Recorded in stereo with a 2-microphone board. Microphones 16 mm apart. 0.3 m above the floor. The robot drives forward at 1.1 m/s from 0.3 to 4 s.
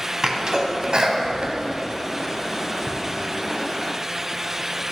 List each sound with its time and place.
0.2 s a sneeze: 40° right (ahead or behind), 2 m; by 2.9 s 35° right (ahead or behind), 2.5 m